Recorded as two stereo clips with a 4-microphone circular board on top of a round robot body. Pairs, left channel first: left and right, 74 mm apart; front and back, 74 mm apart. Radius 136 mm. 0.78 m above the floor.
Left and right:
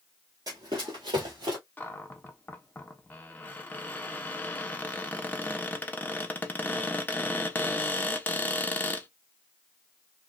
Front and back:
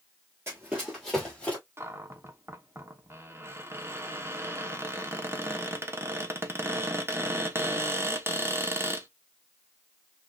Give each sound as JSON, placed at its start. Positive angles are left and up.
{"t": 0.5, "sound": "running footsteps", "azimuth_deg": -125, "distance_m": 0.9}
{"t": 1.8, "sound": "a cupboard door", "azimuth_deg": 145, "distance_m": 0.9}